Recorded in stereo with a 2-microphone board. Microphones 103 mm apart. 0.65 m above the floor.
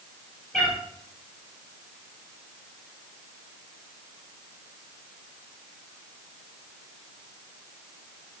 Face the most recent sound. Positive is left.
turn(degrees=5)  # may be behind; listen again after turning